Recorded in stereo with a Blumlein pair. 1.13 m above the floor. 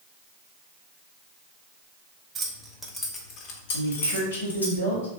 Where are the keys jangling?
20° right, 0.9 m; by 4.7 s 80° left, 1.4 m.